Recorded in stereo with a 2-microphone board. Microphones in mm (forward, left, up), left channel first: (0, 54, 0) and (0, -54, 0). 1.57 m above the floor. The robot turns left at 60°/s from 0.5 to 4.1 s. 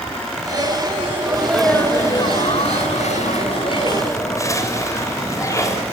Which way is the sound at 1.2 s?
160° right.